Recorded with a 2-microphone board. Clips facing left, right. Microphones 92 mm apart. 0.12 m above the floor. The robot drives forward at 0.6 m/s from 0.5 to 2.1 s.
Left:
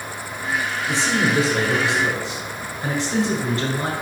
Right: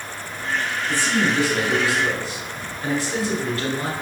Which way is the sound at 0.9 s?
20° left (ahead or behind).